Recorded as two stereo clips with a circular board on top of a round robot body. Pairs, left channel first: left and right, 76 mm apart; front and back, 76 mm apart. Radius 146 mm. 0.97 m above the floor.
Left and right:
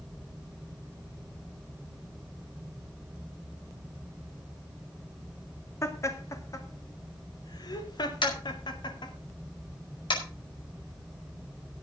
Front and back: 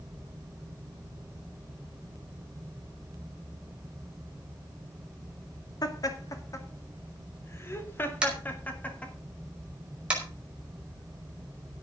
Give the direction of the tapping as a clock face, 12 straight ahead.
9 o'clock.